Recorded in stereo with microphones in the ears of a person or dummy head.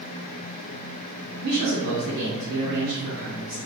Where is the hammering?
I don't hear hammering.